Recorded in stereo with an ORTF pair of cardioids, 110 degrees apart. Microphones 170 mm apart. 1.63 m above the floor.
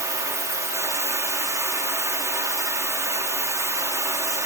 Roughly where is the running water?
Ahead.